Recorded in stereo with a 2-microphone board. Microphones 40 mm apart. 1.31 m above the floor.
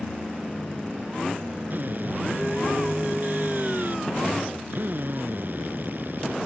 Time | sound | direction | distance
1.7 | a drill | 50° right (ahead or behind) | ?